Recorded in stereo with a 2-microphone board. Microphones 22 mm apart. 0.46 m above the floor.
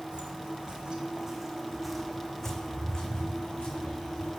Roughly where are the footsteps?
Right.